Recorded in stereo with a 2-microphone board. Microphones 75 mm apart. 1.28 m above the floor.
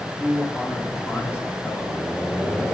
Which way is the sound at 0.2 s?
5° right (ahead or behind).